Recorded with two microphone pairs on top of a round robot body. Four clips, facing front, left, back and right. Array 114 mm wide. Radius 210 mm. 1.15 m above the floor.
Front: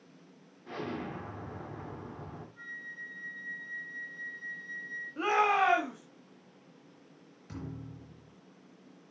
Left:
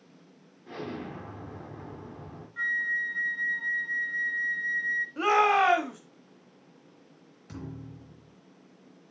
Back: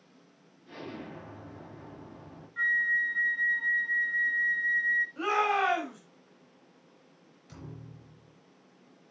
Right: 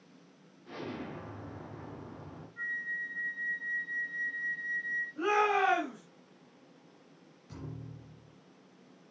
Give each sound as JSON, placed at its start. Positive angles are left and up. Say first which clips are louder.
{"t": 0.7, "sound": "an explosion", "louder": "left 3 dB, front 4 dB", "azimuth_deg": 25, "distance_m": 5.5}
{"t": 2.6, "sound": "a flute", "louder": "left 8 dB, back 17 dB", "azimuth_deg": 140, "distance_m": 1.1}
{"t": 5.2, "sound": "a shout", "louder": "left 5 dB, front 2 dB", "azimuth_deg": 85, "distance_m": 4.0}
{"t": 7.5, "sound": "a thud", "louder": "left 4 dB, front 4 dB", "azimuth_deg": 50, "distance_m": 4.0}